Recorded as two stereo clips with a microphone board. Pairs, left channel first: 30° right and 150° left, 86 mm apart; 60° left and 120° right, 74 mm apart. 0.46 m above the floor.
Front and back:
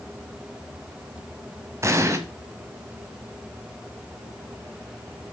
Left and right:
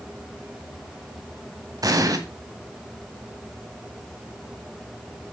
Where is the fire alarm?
I don't hear a fire alarm.